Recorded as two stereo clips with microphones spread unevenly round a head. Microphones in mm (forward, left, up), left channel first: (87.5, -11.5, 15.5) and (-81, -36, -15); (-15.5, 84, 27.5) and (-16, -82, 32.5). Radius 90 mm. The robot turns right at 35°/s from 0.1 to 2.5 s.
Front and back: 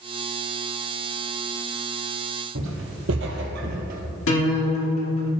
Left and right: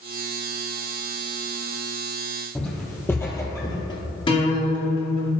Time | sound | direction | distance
2.5 | footsteps | 170° left | 2.5 m
4.3 | a guitar | 25° left | 2 m